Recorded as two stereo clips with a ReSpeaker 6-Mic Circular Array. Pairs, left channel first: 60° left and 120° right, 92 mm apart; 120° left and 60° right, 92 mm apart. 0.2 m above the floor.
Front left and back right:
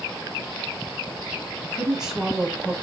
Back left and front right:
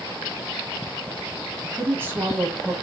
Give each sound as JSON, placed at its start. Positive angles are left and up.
{"t": 1.6, "sound": "a woman speaking", "azimuth_deg": -45, "distance_m": 1.0}